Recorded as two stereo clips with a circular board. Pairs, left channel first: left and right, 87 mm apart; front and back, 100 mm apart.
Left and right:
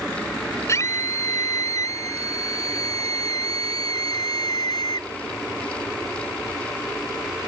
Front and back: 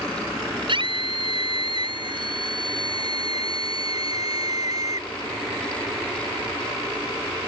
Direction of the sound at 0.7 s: 145° left.